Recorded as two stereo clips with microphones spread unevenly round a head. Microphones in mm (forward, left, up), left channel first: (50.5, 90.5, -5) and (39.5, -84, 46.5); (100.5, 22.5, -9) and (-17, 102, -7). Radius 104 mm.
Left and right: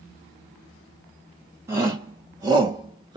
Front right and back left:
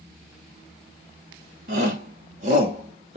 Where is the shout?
170° right, 2 m; by 3.2 s 155° right, 1.3 m.